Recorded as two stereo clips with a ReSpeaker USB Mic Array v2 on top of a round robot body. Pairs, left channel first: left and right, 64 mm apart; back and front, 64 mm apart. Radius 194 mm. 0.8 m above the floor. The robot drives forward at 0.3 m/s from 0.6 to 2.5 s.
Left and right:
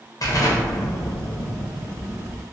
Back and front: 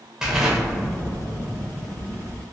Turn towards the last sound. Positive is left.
turn(degrees=125)